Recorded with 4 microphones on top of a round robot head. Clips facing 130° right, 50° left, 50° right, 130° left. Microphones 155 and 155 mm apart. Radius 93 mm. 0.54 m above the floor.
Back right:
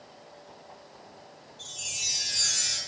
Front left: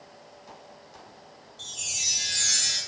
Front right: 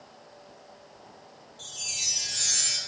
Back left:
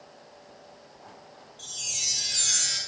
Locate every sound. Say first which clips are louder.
1.6 s a chime: even, even; 30° left, 3.5 m